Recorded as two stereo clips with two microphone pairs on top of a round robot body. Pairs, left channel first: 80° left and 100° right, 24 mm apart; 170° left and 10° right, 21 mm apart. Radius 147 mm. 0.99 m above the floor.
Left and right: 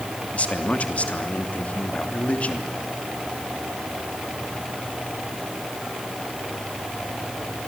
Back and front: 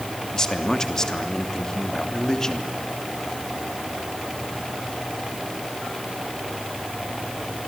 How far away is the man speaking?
About 3 m.